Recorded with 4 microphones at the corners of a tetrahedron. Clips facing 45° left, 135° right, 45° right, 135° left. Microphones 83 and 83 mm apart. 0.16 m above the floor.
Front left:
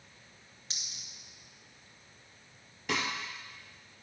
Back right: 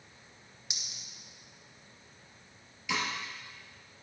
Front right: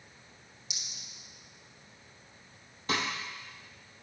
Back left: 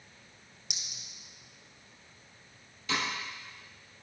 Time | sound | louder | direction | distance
0.7 | a clink | back right 1 dB, back left 1 dB | 150° left | 1.6 m
2.9 | a snare drum | even, front right 1 dB | 5° left | 1.9 m